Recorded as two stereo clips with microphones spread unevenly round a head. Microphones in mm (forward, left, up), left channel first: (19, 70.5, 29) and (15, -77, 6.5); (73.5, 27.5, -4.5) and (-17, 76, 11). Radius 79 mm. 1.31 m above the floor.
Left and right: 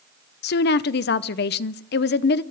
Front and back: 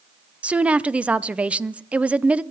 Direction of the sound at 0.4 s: 70° left.